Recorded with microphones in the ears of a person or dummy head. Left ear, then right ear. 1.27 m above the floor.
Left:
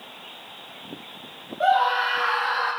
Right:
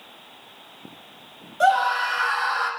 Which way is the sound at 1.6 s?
70° right (ahead or behind).